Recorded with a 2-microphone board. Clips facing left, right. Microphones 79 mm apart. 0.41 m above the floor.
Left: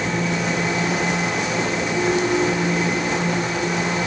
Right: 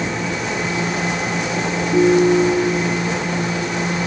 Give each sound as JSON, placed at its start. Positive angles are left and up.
{"t": 1.9, "sound": "a ringtone", "side_deg": -60, "distance_m": 4.5}